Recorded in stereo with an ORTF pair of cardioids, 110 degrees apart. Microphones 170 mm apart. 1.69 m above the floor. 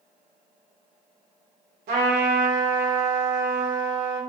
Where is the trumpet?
65° right, 1.0 m.